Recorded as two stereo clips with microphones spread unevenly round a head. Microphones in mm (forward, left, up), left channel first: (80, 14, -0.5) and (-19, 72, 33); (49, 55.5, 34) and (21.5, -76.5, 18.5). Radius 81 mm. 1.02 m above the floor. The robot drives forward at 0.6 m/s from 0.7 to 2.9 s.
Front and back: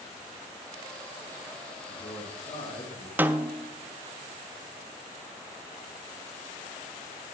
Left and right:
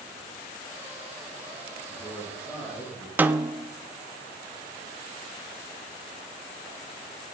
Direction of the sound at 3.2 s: 115° right.